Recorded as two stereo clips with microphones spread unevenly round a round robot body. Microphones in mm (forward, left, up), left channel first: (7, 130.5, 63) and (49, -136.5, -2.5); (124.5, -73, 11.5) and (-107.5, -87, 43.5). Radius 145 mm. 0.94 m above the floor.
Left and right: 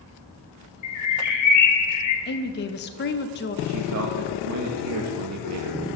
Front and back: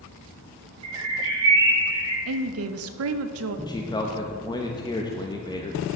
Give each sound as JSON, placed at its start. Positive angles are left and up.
{"t": 0.8, "sound": "a bird", "azimuth_deg": 110, "distance_m": 0.9}
{"t": 2.3, "sound": "a woman speaking", "azimuth_deg": 160, "distance_m": 0.6}
{"t": 3.7, "sound": "a man speaking", "azimuth_deg": -65, "distance_m": 0.9}